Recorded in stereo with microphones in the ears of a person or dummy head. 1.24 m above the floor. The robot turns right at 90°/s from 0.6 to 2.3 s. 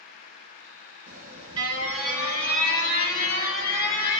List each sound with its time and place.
1.1 s an alarm: 85° right, 1.8 m; by 4.2 s 30° left, 1.8 m